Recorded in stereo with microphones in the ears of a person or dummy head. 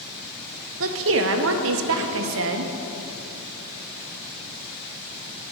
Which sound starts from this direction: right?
A woman speaking, at 0.8 s.